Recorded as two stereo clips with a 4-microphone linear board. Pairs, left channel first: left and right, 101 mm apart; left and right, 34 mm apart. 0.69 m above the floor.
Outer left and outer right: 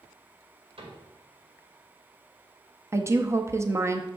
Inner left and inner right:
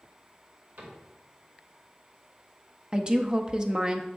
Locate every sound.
0.8 s a cupboard door: 65° right (ahead or behind), 2.5 m
2.9 s a woman speaking: 30° right (ahead or behind), 0.6 m